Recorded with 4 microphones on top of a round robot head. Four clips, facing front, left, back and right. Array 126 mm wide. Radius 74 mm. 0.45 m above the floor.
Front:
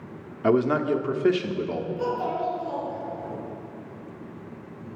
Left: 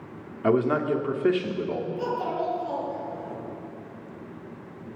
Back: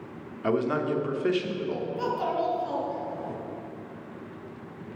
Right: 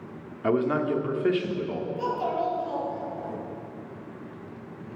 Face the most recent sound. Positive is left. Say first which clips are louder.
# right 3 dB, even
turn(degrees=175)